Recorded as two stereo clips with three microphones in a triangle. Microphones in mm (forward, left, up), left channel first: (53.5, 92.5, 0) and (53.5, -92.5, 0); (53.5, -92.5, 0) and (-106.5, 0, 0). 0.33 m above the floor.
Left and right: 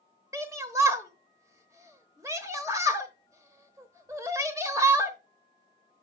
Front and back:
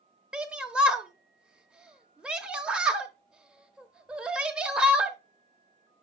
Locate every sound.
0.3 s a shout: 135° right, 0.9 m